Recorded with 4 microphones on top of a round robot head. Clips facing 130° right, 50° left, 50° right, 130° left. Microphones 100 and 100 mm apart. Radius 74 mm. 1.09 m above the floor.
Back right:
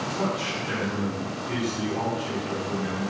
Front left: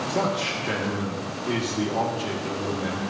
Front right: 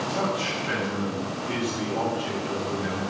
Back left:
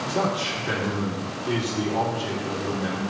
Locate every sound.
0.1 s a man speaking: 65° left, 1.9 m